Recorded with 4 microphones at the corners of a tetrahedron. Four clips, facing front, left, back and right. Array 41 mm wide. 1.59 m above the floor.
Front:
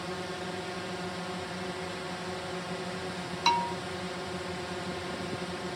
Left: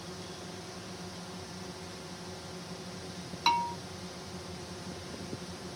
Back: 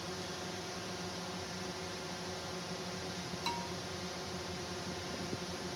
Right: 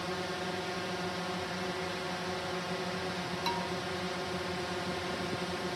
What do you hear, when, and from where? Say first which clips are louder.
0.0 s a drone: right 8 dB, front 6 dB; 60° right
3.5 s a bell: left 8 dB, front 14 dB; 40° left